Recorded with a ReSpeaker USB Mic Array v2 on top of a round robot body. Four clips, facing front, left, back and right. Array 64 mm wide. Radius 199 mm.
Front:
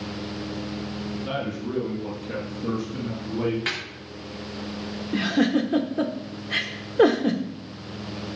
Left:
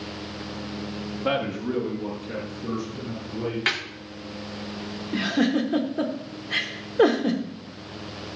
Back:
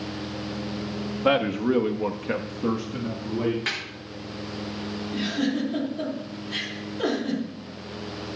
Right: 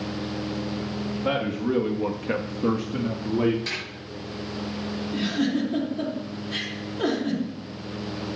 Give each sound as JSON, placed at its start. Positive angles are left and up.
{"t": 1.2, "sound": "a man speaking", "azimuth_deg": 170, "distance_m": 1.8}
{"t": 3.7, "sound": "a snare drum", "azimuth_deg": 85, "distance_m": 3.0}
{"t": 5.1, "sound": "a giggle", "azimuth_deg": 40, "distance_m": 1.2}